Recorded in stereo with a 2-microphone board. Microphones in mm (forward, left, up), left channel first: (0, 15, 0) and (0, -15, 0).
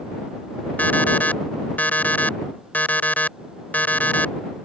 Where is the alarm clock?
60° left (ahead or behind).